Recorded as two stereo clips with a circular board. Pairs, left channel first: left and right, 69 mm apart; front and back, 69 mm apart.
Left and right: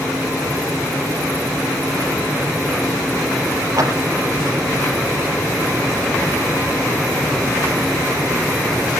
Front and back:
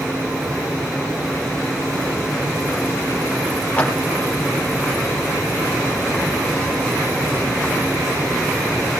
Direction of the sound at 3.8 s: 65° right.